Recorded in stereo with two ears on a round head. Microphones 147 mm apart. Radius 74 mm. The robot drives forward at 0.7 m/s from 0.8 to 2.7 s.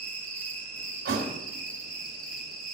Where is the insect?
10° left (ahead or behind), 1.5 m; by 2.8 s 5° left (ahead or behind), 3 m.